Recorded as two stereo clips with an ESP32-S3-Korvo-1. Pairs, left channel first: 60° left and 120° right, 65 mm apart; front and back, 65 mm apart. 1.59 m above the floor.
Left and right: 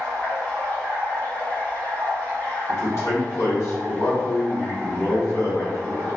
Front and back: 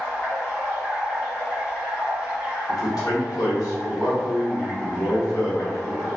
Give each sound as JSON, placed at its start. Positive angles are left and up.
{"t": 0.0, "sound": "running water", "azimuth_deg": 25, "distance_m": 1.7}
{"t": 2.7, "sound": "a man speaking", "azimuth_deg": 20, "distance_m": 1.0}